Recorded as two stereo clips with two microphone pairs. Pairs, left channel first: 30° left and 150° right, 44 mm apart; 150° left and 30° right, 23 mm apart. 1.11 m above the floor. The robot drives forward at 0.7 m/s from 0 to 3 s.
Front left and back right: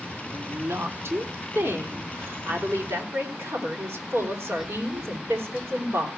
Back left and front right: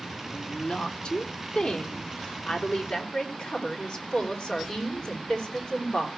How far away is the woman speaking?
About 2.5 m.